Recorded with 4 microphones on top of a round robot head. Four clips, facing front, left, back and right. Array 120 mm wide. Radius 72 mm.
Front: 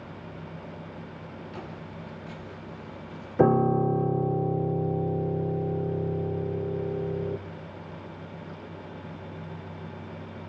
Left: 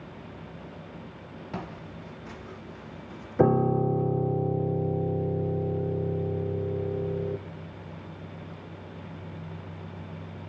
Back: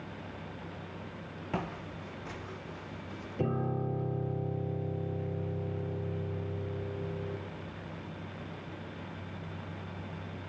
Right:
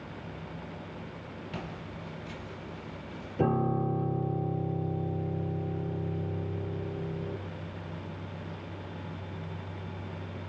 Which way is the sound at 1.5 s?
150° left.